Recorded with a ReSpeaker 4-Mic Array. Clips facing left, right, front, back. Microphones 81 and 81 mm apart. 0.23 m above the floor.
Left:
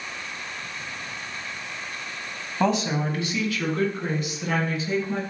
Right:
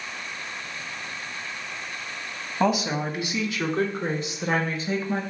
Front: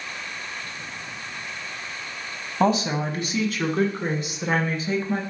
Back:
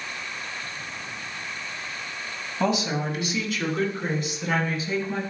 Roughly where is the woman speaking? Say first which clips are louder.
Even, front 3 dB; ahead.